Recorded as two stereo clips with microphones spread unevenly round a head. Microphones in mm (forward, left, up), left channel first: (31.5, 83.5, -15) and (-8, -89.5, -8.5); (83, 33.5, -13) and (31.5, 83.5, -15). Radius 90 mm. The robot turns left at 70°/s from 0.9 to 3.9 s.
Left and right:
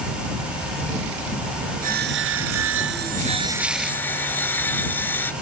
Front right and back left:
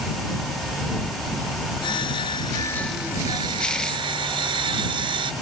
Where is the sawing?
55° right; by 5.3 s 160° left.